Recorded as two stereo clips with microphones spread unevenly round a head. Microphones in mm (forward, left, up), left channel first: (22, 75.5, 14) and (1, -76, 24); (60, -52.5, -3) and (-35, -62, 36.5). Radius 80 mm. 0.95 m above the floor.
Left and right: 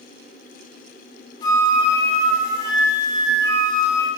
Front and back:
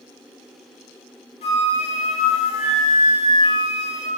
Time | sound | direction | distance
1.4 | a flute | 30° left | 0.9 m